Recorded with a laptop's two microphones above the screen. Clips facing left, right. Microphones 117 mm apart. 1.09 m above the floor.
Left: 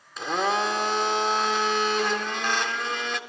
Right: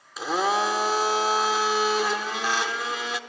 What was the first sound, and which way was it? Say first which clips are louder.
A blender: right 1 dB; 5° right (ahead or behind).